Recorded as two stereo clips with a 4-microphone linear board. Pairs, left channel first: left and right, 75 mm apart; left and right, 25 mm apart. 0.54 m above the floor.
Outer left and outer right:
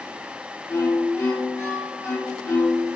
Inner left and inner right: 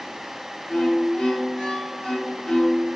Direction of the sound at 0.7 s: 45° left (ahead or behind).